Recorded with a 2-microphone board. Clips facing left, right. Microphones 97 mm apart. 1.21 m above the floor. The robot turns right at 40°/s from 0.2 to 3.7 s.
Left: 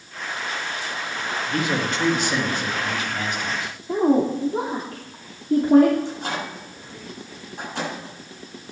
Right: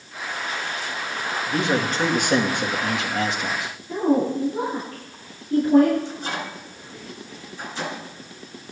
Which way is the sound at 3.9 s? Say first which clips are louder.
Left 2 dB; 65° left (ahead or behind).